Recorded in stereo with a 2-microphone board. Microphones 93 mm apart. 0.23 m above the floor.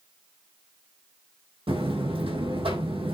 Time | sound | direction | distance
1.7 | a buzzer | 75° right (ahead or behind) | 3 m